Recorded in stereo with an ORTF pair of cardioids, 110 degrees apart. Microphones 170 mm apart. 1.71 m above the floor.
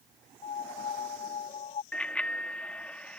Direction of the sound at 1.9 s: 5° left.